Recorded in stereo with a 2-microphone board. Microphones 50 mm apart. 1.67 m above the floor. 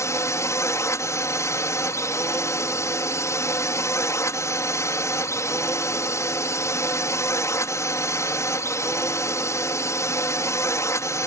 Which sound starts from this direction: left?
A drone, at 0.0 s.